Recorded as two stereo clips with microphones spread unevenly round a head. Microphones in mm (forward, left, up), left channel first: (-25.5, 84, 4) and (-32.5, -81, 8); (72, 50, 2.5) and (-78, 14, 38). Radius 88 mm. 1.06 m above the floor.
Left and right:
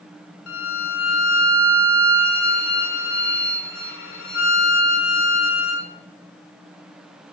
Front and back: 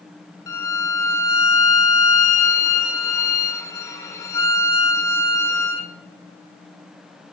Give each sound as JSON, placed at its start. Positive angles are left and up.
{"t": 0.5, "sound": "a violin", "azimuth_deg": 85, "distance_m": 2.5}